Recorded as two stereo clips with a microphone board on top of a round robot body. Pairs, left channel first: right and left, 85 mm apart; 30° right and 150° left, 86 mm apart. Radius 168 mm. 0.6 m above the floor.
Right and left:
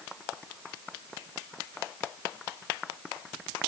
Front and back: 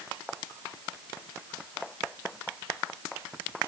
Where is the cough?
No cough in this recording.